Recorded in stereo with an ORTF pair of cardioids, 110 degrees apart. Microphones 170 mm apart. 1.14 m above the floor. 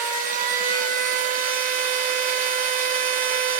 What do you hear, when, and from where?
0.0 s a machine running: 55° right, 0.7 m